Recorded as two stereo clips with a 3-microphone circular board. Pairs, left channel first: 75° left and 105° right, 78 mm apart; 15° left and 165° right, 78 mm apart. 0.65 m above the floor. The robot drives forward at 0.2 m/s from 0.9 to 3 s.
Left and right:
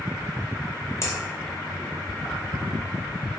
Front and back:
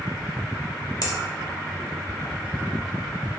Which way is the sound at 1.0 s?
30° left.